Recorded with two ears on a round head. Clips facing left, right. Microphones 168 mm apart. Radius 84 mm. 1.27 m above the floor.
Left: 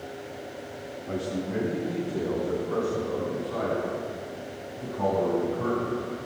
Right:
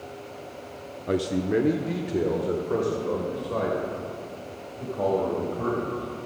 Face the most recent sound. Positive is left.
turn(degrees=-70)  # may be behind; listen again after turning